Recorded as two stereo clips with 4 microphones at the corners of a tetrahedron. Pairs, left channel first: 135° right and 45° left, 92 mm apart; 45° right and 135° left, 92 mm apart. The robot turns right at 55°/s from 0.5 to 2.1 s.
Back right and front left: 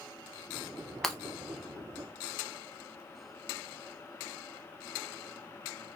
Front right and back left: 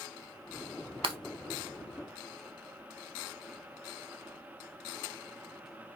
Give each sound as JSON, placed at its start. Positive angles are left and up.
{"t": 1.0, "sound": "breaking glass", "azimuth_deg": 135, "distance_m": 0.5}